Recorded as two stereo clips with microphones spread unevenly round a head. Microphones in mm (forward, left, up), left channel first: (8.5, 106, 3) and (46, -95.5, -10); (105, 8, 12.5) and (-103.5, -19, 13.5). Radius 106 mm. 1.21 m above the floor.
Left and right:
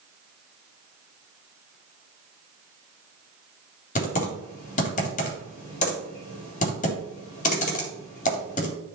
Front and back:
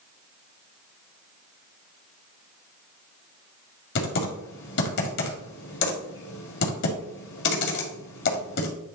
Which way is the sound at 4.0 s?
45° left.